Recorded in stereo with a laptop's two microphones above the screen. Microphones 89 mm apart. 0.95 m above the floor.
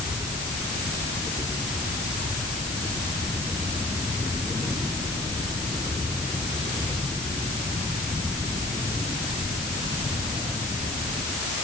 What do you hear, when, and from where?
Only background noise.